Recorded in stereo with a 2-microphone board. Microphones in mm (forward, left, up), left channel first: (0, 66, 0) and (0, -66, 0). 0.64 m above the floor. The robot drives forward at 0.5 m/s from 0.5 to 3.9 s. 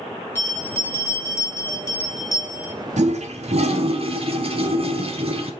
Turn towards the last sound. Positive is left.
turn(degrees=-50)  # may be behind; listen again after turning